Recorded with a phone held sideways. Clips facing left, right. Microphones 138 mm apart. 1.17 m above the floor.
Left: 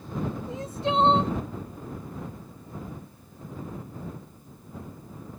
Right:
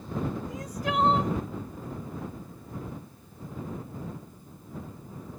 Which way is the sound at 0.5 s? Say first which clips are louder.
Left 3 dB; 25° left (ahead or behind).